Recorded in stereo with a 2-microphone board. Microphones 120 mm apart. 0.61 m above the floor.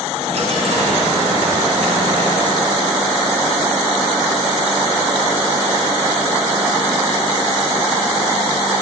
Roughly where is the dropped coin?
Right.